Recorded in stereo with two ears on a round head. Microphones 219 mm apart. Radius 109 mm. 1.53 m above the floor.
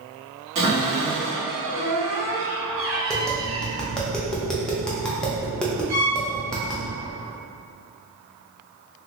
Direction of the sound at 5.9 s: 40° right (ahead or behind).